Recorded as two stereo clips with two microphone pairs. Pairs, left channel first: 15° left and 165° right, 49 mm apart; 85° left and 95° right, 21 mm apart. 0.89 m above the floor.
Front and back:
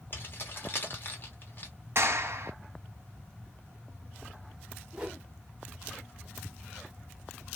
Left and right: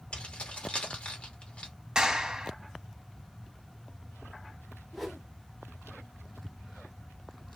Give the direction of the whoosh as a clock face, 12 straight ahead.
7 o'clock.